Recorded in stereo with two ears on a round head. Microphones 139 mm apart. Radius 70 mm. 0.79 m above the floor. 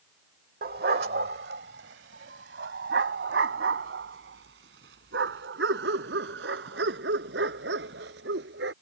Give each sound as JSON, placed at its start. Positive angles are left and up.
{"t": 0.6, "sound": "a dog barking", "side_deg": -60}